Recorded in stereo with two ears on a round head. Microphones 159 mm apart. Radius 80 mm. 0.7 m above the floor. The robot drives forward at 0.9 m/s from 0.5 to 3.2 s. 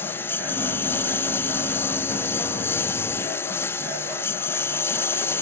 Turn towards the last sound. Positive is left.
turn(degrees=15)  # may be behind; listen again after turning